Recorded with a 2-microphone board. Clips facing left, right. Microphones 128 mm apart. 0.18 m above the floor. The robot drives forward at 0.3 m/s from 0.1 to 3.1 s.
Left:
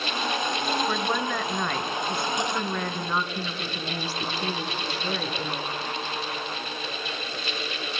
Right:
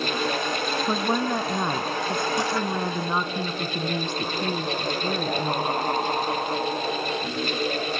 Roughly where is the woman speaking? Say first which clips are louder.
Right 3 dB; right.